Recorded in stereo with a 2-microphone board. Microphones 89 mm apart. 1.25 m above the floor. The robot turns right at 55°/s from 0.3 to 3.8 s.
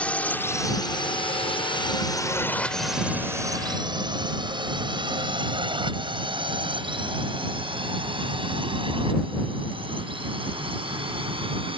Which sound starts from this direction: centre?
A drone, at 0.0 s.